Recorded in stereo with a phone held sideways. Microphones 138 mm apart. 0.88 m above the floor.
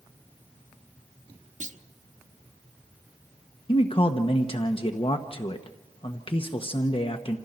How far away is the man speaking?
About 1.2 m.